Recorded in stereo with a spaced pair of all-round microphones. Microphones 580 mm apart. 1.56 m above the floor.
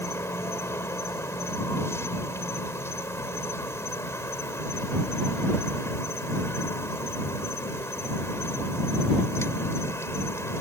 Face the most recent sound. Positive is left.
turn(degrees=5)  # may be behind; listen again after turning